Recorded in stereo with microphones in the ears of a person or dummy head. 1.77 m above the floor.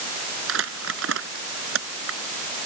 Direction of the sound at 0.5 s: 85° right.